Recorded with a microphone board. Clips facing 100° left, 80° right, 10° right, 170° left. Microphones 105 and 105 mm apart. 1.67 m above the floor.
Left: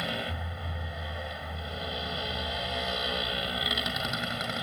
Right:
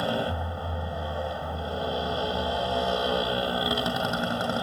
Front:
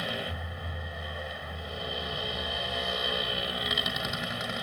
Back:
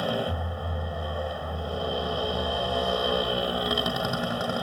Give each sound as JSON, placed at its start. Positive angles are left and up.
{"t": 0.0, "sound": "a motorcycle", "azimuth_deg": -135}